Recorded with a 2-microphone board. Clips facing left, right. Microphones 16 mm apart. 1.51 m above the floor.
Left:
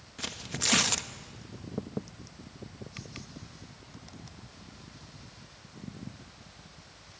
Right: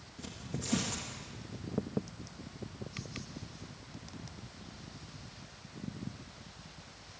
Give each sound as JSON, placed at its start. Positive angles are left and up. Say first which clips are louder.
{"t": 0.2, "sound": "tearing paper", "louder": "left 9 dB", "side_deg": 50, "distance_m": 1.0}